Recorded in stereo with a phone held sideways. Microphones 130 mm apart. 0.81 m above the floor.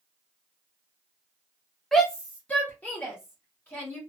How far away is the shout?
About 0.5 m.